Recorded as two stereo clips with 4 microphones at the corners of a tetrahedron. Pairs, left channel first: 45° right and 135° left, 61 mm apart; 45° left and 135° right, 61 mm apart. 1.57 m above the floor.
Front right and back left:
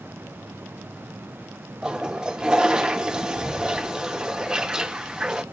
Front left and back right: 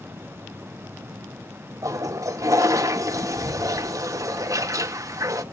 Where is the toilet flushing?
150° right, 0.8 m.